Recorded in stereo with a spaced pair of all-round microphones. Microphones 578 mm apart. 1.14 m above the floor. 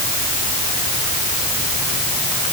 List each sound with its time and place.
Only background noise.